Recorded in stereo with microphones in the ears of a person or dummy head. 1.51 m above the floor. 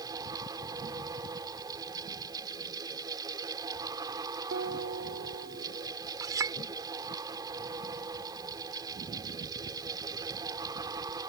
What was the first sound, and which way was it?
A fan, 25° right (ahead or behind).